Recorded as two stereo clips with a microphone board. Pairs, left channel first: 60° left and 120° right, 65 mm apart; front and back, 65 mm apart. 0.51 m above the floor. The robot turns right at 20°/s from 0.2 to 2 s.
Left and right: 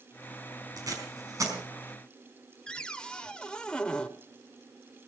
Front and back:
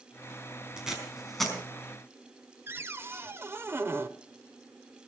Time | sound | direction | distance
0.8 | tape being pulled | 100° right | 4.5 m
2.7 | a cupboard door | 130° left | 1.0 m